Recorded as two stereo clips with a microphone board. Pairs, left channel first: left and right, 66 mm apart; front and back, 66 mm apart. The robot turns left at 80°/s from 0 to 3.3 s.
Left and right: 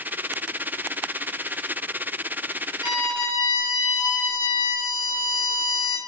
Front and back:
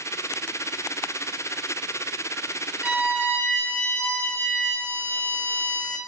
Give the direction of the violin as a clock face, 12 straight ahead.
8 o'clock.